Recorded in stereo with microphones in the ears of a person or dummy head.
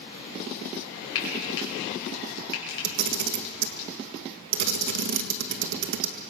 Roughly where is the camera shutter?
Right.